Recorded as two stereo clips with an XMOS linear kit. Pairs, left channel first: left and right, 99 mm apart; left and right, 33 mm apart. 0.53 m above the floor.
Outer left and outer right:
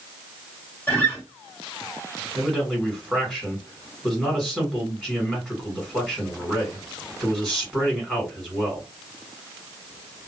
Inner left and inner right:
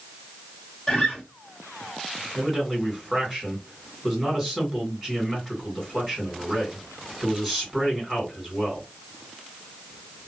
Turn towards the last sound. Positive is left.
turn(degrees=0)  # may be behind; listen again after turning